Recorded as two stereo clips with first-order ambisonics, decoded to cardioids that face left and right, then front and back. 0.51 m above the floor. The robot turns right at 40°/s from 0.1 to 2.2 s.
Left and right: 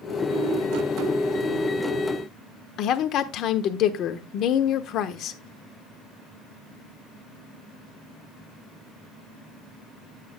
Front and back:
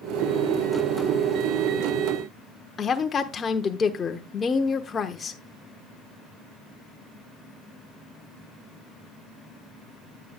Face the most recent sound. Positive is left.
turn(degrees=65)